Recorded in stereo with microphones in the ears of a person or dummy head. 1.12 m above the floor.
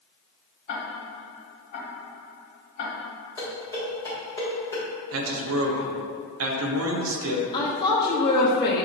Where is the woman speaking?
20° left (ahead or behind), 0.8 m.